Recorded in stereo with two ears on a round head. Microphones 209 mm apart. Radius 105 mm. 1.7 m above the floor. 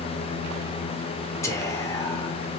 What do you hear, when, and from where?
1.4 s whispering: 15° left (ahead or behind), 1.1 m